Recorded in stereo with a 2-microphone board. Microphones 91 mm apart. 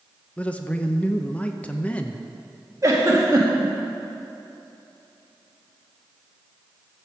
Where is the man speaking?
15° left (ahead or behind), 0.7 m.